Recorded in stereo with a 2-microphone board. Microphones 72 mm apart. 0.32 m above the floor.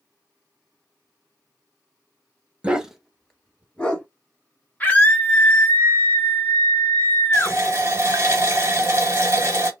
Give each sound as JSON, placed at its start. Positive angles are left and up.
{"t": 2.6, "sound": "a dog barking", "side_deg": -15, "distance_m": 0.6}
{"t": 4.8, "sound": "a scream", "side_deg": 25, "distance_m": 1.3}
{"t": 7.3, "sound": "a running tap", "side_deg": -35, "distance_m": 1.3}